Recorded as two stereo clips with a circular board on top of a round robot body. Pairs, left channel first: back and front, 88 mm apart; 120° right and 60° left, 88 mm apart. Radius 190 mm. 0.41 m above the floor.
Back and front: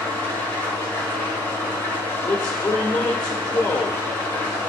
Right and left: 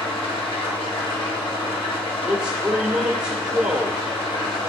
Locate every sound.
0.0 s an engine running: 115° right, 1.9 m
2.2 s a man speaking: 140° left, 1.8 m